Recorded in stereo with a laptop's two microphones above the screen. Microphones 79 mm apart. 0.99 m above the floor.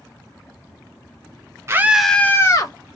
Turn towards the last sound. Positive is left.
turn(degrees=45)  # may be behind; listen again after turning